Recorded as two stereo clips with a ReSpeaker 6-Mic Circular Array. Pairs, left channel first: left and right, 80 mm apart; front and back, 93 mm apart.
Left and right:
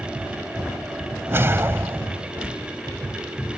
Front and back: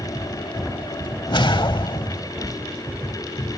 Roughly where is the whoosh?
Ahead right.